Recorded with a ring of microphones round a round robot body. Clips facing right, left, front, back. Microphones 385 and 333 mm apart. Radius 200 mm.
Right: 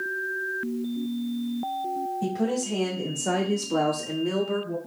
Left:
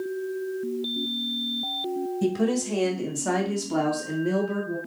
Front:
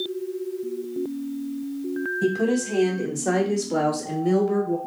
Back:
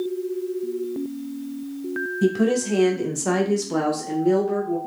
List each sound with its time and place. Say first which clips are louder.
2.2 s a woman speaking: left 2 dB, back 3 dB; 130° left, 1.7 m; by 4.8 s 45° right, 1.1 m